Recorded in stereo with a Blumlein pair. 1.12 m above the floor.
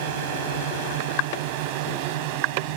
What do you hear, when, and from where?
0.0 s a drone: 50° right; by 2.8 s 45° right